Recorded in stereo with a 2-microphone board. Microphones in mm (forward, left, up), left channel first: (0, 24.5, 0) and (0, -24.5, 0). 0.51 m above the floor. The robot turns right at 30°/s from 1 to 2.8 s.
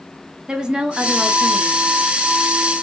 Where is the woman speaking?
20° right (ahead or behind), 0.7 m.